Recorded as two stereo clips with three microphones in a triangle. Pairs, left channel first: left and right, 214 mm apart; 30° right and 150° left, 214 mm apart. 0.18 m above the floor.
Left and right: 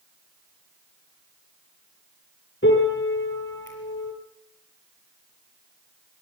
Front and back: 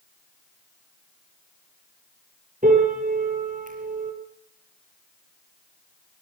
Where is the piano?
105° left, 4.5 m.